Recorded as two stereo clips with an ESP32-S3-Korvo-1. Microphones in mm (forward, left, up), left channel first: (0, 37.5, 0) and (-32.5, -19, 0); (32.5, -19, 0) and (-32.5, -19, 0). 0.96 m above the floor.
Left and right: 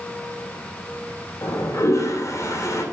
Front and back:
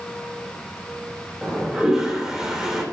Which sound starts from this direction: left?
A toilet flushing, at 1.4 s.